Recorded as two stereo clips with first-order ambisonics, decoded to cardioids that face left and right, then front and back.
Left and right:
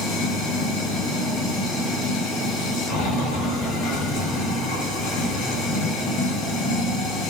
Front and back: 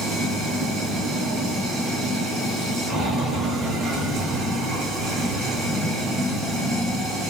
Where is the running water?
110° left, 8.5 m.